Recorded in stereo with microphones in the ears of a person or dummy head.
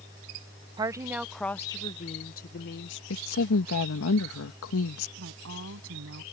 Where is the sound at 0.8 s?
25° right (ahead or behind); by 3.0 s 60° left (ahead or behind).